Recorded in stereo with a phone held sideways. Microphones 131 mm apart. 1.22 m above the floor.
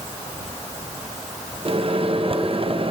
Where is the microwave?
45° right (ahead or behind), 0.7 m.